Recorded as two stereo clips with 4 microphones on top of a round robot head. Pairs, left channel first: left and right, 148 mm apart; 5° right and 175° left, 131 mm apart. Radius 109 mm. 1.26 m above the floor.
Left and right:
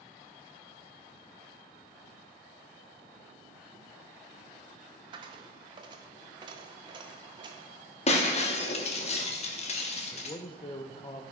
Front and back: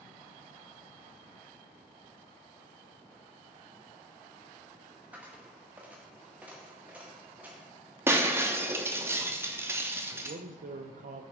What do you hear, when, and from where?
5.1 s a dropped coin: 110° right, 0.6 m
8.1 s breaking glass: 110° left, 0.8 m
10.1 s a man speaking: 150° left, 0.6 m